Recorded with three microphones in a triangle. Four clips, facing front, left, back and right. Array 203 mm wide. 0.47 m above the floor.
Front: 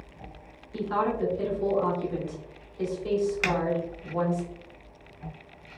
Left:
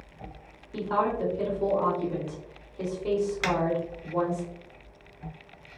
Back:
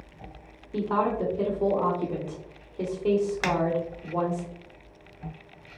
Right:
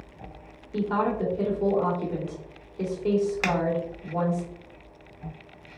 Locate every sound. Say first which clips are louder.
0.7 s a woman speaking: right 1 dB, back 2 dB; 175° left, 1.7 m
3.4 s a finger snap: right 1 dB, back 1 dB; 135° right, 0.6 m